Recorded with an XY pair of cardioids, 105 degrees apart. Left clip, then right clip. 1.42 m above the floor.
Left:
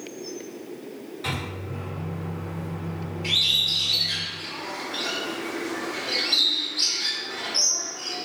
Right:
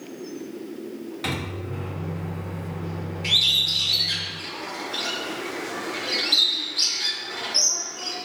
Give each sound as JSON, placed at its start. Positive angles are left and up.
{"t": 1.2, "sound": "a microwave", "azimuth_deg": -55, "distance_m": 1.0}
{"t": 3.2, "sound": "a bird", "azimuth_deg": -30, "distance_m": 0.9}